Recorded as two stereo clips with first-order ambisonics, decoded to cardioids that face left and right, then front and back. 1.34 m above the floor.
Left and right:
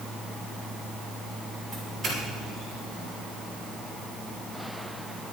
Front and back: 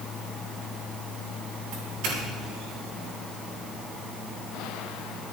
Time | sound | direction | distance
1.7 | a doorbell | straight behind | 7 m